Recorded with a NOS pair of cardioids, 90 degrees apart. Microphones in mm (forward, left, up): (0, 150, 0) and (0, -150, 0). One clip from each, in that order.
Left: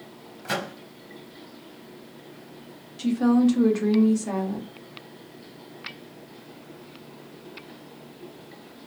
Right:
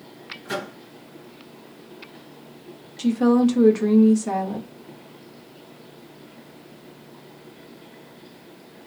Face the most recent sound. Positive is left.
turn(degrees=-15)